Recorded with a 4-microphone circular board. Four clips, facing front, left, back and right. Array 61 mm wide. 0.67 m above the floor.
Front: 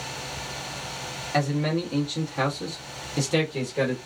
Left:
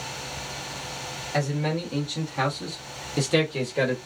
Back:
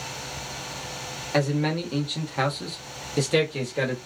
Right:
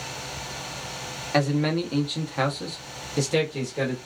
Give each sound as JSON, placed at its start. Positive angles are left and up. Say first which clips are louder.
{"t": 1.3, "sound": "a man speaking", "louder": "right 4 dB, back 1 dB", "azimuth_deg": -115, "distance_m": 1.4}